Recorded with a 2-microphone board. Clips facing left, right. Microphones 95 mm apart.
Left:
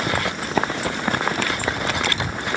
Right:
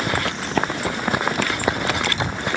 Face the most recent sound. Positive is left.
turn(degrees=-25)  # may be behind; listen again after turning